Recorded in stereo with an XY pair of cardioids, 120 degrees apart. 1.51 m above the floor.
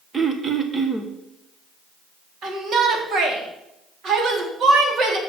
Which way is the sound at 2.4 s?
55° right.